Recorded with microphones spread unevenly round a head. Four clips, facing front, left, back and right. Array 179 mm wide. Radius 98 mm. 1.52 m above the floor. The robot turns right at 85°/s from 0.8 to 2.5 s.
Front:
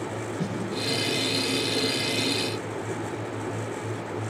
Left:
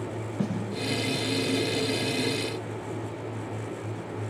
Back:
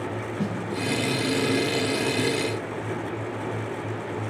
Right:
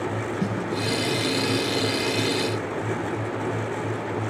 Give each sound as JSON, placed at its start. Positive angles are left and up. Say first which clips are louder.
{"t": 0.4, "sound": "a snare drum", "louder": "even, back 4 dB", "azimuth_deg": 100, "distance_m": 8.0}